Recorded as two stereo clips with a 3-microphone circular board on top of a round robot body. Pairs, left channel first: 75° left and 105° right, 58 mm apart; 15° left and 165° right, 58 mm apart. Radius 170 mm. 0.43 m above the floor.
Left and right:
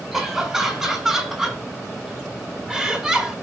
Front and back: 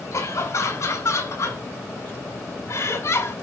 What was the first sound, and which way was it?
Laughter, 20° right.